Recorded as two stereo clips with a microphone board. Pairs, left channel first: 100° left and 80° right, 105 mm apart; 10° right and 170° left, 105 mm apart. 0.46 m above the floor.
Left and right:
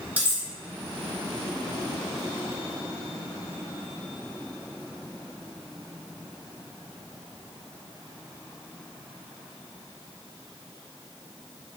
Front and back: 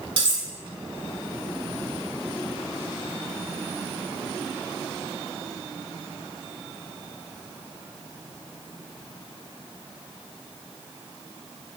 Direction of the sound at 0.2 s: 155° right.